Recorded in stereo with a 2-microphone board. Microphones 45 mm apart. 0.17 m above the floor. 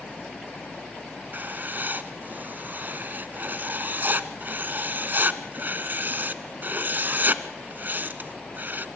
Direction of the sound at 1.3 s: 45° right (ahead or behind).